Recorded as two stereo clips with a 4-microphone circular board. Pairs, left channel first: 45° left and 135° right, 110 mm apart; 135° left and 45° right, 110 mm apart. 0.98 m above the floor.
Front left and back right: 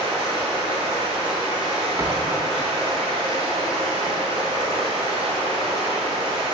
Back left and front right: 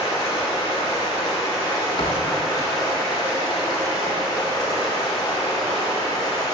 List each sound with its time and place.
0.0 s running water: 170° right, 2.5 m
2.0 s a thud: 160° left, 1.1 m